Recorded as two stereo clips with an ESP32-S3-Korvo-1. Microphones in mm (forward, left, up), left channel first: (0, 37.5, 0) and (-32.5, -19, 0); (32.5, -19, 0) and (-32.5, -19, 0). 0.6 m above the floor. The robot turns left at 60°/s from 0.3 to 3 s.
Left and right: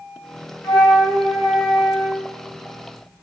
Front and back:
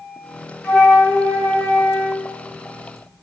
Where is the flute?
50° left, 4 m; by 2.3 s 45° right, 4 m.